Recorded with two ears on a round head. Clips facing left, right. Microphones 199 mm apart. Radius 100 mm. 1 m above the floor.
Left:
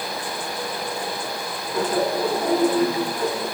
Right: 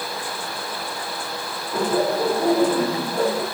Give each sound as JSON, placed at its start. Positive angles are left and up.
{"t": 1.7, "sound": "laughter", "side_deg": -50, "distance_m": 9.0}